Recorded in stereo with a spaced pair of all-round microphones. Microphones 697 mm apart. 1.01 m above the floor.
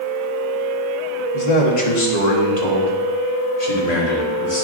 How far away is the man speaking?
About 1.5 m.